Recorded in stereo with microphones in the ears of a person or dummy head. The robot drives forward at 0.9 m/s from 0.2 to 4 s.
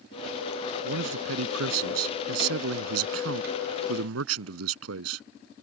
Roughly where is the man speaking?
Right.